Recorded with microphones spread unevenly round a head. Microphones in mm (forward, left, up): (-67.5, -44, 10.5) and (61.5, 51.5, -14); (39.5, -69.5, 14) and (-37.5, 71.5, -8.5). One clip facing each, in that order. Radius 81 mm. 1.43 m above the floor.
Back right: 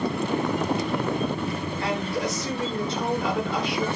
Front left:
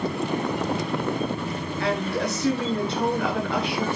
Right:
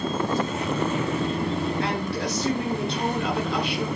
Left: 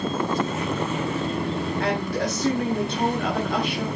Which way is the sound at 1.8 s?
70° left.